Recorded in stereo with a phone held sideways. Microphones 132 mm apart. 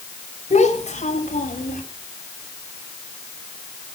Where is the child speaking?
60° left (ahead or behind), 4 m; by 1.8 s 75° left (ahead or behind), 5 m.